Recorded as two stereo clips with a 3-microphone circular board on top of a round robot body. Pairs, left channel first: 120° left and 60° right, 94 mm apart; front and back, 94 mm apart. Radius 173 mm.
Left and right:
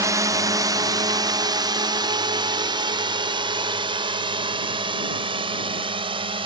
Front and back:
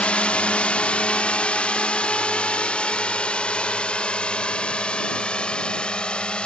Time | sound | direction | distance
0.0 | a drone | 70° right | ?